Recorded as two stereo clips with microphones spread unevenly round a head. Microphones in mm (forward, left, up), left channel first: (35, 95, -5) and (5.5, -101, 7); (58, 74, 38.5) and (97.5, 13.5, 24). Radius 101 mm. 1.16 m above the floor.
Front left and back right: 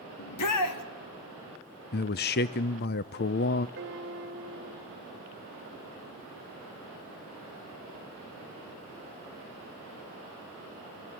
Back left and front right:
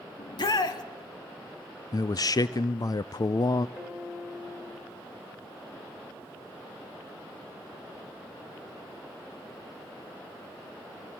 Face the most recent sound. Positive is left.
turn(degrees=-140)